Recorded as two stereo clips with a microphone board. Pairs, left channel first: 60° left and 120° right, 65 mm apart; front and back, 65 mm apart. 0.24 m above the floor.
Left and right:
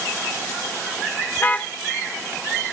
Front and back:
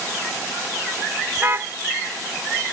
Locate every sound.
1.4 s a car horn: 125° left